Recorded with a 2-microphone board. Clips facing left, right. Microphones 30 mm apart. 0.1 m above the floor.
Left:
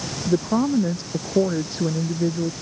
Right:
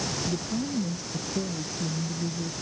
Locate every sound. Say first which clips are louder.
0.3 s a woman speaking: left 10 dB; 65° left (ahead or behind)